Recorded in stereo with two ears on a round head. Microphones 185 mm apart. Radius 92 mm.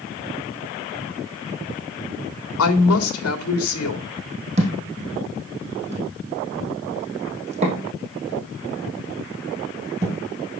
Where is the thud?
35° right (ahead or behind), 3.5 m.